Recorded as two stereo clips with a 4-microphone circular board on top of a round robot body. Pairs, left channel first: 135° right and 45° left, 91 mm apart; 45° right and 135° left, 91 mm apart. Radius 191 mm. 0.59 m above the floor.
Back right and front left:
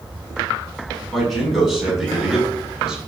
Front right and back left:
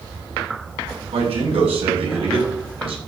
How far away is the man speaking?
About 6.5 m.